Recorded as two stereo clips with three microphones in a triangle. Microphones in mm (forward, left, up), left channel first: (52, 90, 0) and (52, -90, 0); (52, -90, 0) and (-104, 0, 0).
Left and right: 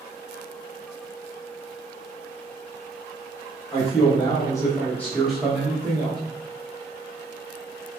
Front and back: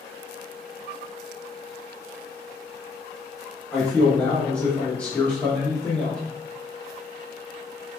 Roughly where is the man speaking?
Ahead left.